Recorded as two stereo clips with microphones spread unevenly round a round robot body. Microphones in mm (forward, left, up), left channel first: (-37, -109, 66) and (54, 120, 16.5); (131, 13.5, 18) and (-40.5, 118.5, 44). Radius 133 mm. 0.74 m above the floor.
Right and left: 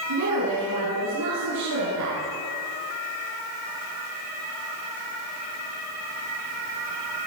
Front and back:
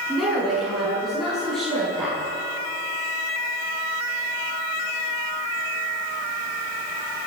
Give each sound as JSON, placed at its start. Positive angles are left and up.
{"t": 0.1, "sound": "a woman speaking", "azimuth_deg": 60, "distance_m": 9.0}